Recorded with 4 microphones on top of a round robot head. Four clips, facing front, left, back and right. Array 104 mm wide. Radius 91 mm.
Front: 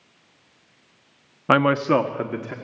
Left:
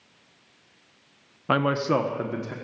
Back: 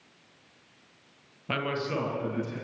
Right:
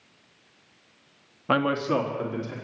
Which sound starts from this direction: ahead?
A man speaking, at 1.5 s.